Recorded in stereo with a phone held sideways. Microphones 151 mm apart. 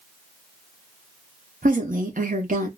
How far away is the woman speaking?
About 1.0 m.